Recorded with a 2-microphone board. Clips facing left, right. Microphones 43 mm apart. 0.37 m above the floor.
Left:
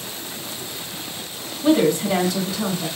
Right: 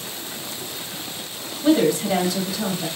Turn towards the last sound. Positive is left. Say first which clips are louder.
# left 1 dB
turn(degrees=-5)  # may be behind; listen again after turning